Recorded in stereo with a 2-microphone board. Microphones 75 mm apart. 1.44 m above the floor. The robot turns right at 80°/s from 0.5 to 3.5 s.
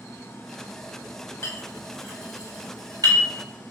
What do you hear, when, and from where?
1.4 s a clink: 40° left (ahead or behind), 1.1 m; by 3.2 s 55° right (ahead or behind), 1.1 m